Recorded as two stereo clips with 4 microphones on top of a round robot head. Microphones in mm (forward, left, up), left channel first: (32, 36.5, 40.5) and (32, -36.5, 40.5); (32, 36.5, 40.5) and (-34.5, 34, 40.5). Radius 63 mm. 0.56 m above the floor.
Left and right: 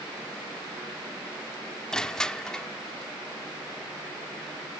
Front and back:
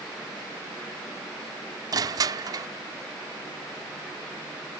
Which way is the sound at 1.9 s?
170° left.